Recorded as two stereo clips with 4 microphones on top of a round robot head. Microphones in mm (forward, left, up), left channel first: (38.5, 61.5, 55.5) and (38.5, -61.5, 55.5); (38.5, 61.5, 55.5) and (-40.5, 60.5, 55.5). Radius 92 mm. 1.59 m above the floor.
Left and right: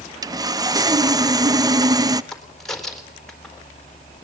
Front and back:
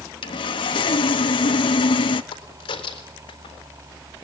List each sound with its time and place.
0.2 s sawing: 30° right, 1.0 m
2.3 s a crack: 5° left, 4 m